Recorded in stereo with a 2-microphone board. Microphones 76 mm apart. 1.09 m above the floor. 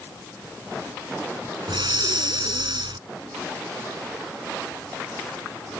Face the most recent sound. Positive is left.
turn(degrees=-80)